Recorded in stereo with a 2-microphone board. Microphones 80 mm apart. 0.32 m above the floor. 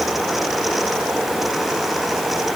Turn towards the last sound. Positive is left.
No sound to turn to.